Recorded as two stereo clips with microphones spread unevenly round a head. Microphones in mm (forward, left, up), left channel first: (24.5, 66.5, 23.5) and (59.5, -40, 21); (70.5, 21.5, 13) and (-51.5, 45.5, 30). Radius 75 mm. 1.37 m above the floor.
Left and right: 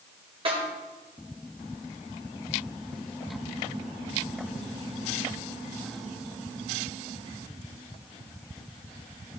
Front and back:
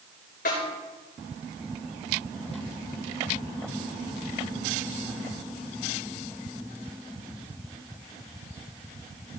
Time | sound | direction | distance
0.5 | a snare drum | 40° right | 4 m